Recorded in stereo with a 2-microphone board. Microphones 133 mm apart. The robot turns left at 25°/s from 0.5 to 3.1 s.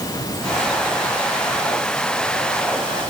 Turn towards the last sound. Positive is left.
No sound to turn to.